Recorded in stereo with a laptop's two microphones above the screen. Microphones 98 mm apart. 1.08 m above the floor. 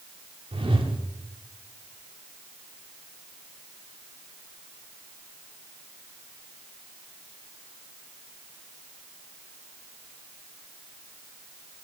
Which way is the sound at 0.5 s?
75° right (ahead or behind).